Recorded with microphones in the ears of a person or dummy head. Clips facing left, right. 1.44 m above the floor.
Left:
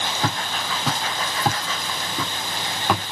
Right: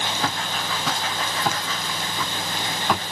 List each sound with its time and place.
0.2 s footsteps: 20° left (ahead or behind), 3 m; by 3.0 s 45° left (ahead or behind), 2.5 m